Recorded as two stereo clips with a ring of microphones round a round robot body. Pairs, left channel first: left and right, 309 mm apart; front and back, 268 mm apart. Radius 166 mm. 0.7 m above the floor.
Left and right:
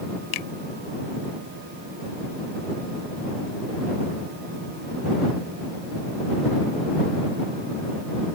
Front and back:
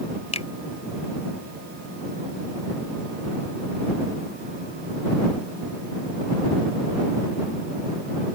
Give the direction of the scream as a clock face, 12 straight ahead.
I don't hear a scream.